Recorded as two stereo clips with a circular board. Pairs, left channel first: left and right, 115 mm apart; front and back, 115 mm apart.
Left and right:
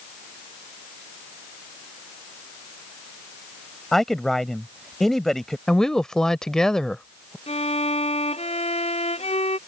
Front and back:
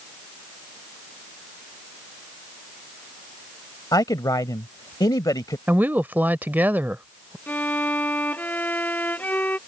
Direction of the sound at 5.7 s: 160° left.